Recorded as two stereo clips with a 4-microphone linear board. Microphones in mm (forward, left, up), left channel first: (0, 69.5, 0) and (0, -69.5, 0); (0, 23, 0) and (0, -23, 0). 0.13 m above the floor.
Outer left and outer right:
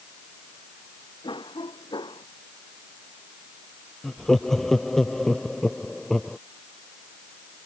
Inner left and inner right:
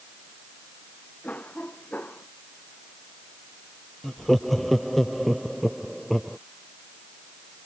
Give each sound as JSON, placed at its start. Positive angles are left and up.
{"t": 1.2, "sound": "a cough", "side_deg": 35}
{"t": 4.0, "sound": "laughter", "side_deg": 0}